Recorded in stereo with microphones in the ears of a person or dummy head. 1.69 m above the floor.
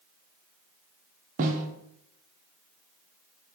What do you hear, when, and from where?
1.4 s a snare drum: 45° right (ahead or behind), 0.6 m